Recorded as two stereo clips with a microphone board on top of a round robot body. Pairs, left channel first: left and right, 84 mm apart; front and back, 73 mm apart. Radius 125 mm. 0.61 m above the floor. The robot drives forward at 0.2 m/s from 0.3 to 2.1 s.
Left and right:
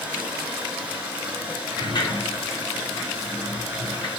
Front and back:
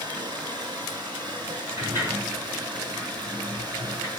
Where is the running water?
165° right, 4 m.